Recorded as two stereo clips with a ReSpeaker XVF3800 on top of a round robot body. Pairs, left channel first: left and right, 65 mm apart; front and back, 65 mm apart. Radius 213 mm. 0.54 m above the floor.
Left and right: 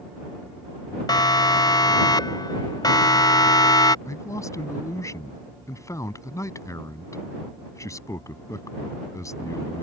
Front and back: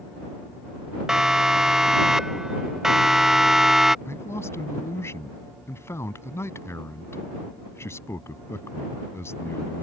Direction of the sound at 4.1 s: 50° left.